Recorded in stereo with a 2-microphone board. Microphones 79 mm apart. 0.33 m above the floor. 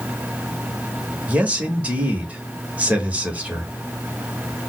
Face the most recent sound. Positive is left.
turn(degrees=-20)  # may be behind; listen again after turning